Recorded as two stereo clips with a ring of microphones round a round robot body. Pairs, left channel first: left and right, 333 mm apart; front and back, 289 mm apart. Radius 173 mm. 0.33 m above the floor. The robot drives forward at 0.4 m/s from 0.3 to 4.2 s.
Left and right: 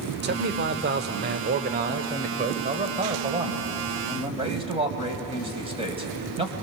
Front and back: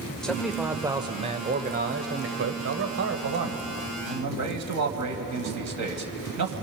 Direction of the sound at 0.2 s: 85° right.